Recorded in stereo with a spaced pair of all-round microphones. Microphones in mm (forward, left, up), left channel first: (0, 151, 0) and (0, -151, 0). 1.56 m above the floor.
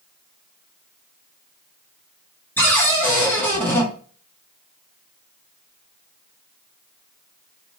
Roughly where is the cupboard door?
Centre.